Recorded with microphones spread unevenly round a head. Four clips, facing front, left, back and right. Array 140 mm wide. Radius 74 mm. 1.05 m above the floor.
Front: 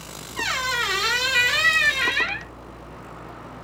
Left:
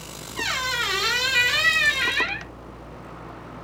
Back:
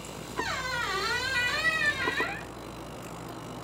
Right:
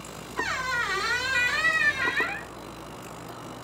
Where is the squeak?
20° left, 1.2 m.